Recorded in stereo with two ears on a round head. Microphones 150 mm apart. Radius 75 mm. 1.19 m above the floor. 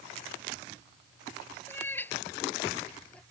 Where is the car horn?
No car horn in this recording.